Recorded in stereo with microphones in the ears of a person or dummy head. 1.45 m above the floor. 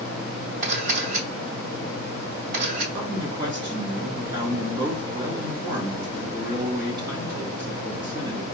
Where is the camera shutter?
50° right (ahead or behind), 3 m.